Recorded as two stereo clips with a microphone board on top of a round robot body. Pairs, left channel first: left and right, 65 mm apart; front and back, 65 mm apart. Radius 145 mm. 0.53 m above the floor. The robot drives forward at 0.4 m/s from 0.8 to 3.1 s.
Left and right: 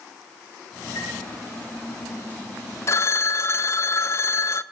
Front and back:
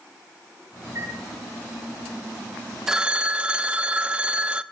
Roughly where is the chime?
Behind left.